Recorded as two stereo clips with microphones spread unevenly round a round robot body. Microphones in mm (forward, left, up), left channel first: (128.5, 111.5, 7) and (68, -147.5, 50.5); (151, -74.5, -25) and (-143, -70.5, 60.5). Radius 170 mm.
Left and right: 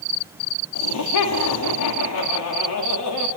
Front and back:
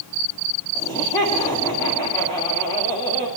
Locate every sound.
0.8 s laughter: 75° left, 2 m